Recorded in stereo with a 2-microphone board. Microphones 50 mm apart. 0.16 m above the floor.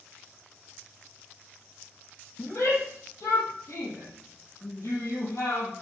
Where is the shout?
70° left (ahead or behind), 6 m; by 5.7 s 75° left (ahead or behind), 5.5 m.